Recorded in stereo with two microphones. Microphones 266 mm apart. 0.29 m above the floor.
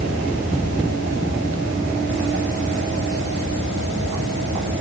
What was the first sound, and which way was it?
Only background noise.